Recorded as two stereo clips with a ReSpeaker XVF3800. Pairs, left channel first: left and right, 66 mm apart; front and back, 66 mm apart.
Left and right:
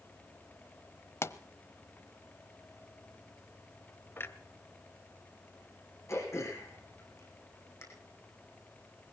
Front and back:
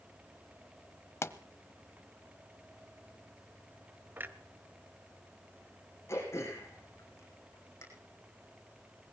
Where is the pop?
45° left, 0.8 m.